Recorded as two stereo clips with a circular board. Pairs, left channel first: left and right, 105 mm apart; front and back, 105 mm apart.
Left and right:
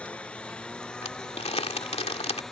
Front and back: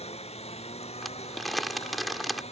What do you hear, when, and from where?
0.0 s a lawn mower: 10° left; by 2.5 s 5° left
1.0 s crumpling: 90° left